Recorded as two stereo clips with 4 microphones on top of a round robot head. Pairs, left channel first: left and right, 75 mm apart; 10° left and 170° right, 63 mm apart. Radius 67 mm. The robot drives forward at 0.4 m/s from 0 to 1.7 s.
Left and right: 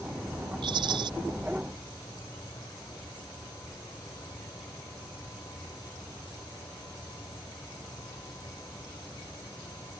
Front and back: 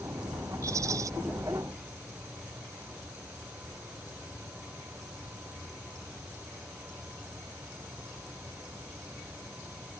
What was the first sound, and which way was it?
A rattle, 120° right.